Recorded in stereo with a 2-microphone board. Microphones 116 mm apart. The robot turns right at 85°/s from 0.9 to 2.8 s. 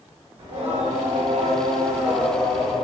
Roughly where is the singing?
Behind right.